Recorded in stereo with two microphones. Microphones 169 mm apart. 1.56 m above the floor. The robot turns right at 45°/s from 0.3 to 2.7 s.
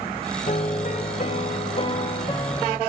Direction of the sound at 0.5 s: 65° left.